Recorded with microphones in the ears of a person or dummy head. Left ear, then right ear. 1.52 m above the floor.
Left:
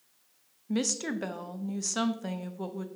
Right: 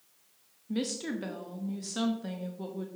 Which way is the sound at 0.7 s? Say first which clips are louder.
Left 3 dB; 30° left (ahead or behind).